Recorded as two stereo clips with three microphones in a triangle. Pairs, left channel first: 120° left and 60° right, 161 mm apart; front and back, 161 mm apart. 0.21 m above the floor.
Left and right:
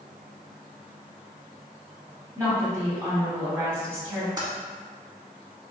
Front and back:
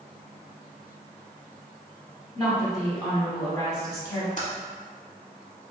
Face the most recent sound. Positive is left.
turn(degrees=-5)